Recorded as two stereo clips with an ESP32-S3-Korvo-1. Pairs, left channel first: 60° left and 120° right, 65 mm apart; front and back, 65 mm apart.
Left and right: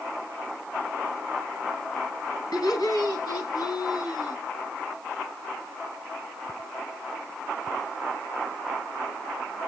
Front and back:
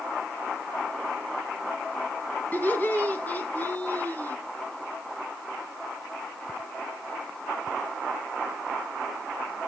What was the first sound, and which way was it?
Laughter, 60° left.